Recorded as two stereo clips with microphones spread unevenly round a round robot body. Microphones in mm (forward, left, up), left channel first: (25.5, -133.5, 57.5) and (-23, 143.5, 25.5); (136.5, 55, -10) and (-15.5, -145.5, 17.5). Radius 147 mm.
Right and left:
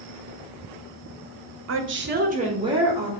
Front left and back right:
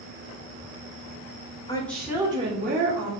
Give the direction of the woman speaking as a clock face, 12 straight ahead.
8 o'clock.